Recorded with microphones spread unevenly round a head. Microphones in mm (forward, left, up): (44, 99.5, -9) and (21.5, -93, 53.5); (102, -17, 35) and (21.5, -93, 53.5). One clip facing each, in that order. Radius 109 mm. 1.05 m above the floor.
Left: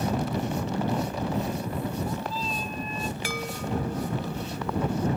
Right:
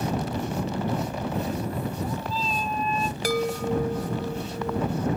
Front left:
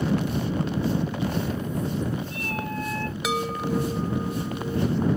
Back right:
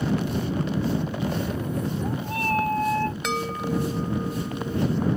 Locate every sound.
1.3 s a cat meowing: 130° right; by 3.1 s 90° right
3.2 s a chime: 40° right